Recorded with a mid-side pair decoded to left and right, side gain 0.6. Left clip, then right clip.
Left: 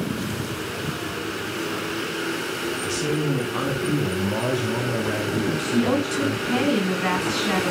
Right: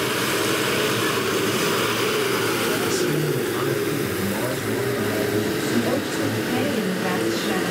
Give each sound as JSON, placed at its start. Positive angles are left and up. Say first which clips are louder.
{"t": 2.8, "sound": "a man speaking", "louder": "right 2 dB", "azimuth_deg": 15, "distance_m": 3.0}
{"t": 5.7, "sound": "a woman speaking", "louder": "even", "azimuth_deg": 30, "distance_m": 7.5}